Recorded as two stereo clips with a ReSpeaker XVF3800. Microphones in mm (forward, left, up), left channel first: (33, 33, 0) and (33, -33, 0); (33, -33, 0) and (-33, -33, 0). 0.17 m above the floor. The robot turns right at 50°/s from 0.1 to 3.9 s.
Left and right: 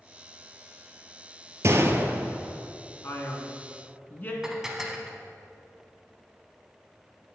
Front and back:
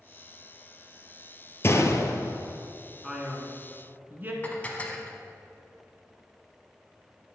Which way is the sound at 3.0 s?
95° left.